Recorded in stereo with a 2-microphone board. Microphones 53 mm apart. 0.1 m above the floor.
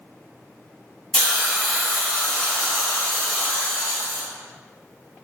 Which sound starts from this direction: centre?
A hiss, at 1.1 s.